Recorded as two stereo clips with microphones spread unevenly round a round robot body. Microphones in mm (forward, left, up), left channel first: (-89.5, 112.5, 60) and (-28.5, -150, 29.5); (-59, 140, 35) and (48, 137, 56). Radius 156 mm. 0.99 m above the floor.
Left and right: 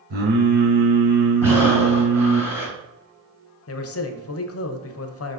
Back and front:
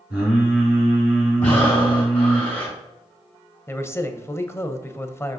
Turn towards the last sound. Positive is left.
turn(degrees=125)